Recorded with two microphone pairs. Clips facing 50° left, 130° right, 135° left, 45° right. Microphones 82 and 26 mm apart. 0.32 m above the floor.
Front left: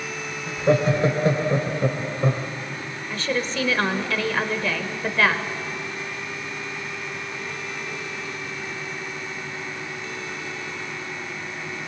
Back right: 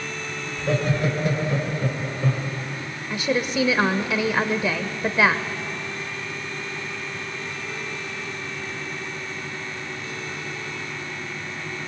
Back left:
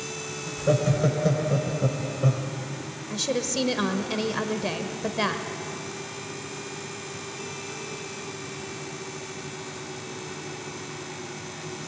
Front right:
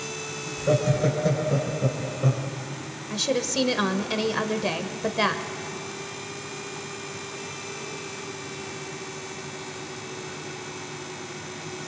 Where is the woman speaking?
85° right, 1.1 m.